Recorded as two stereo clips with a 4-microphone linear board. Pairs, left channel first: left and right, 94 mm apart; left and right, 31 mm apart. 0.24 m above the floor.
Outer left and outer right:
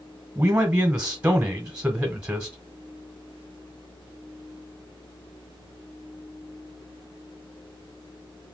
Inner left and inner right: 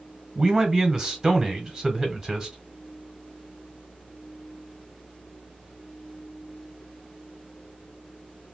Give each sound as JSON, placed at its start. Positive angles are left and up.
{"t": 0.3, "sound": "a man speaking", "side_deg": -15, "distance_m": 1.1}